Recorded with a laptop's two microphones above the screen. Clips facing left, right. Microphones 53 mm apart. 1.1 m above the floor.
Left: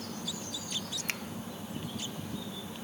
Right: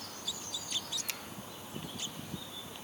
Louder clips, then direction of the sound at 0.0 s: Left 5 dB; 90° left.